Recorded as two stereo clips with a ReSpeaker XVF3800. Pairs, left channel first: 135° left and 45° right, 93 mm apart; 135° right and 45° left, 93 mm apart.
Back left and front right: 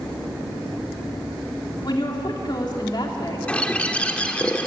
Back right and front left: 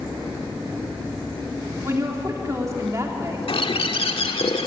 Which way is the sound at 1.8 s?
100° left.